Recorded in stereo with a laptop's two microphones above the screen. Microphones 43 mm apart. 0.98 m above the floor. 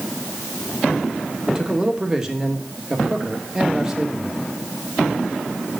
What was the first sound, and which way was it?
A man speaking, 15° right (ahead or behind).